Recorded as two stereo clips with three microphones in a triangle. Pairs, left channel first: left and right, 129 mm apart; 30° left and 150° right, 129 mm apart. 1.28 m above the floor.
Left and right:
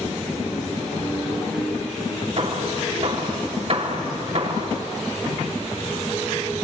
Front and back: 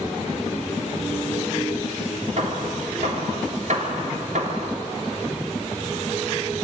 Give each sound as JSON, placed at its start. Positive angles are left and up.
{"t": 2.4, "sound": "hammering", "azimuth_deg": -125, "distance_m": 3.5}